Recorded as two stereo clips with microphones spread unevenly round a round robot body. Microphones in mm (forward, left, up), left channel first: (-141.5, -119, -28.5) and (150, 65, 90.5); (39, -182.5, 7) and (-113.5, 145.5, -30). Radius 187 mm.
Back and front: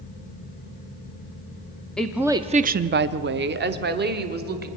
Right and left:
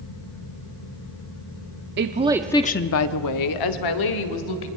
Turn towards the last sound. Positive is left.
turn(degrees=-35)